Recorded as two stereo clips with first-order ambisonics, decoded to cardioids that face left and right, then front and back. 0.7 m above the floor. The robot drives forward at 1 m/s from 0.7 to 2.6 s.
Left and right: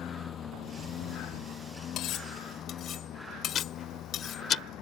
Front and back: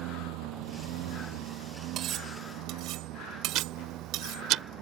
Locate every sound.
0.0 s a lawn mower: 155° left; by 4.8 s 135° left
2.0 s cutlery clinking: 130° left; by 4.4 s 145° left
3.5 s ticking: 145° left